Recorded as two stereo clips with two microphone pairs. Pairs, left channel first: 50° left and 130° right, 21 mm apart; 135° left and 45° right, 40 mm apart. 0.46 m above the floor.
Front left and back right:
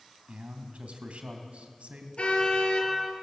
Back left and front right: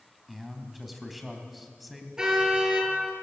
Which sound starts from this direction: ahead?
A car horn, at 2.2 s.